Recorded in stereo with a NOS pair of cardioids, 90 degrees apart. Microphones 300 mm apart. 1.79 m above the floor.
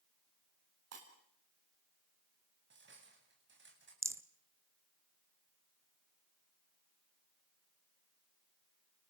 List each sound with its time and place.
0.9 s breaking glass: 55° right, 8 m
2.7 s cutlery clinking: 40° right, 8 m
4.0 s a rattle: 10° right, 1.2 m